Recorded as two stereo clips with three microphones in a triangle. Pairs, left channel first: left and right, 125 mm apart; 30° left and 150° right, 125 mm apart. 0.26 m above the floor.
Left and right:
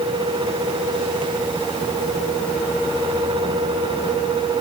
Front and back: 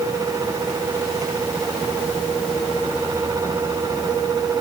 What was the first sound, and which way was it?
Only background noise.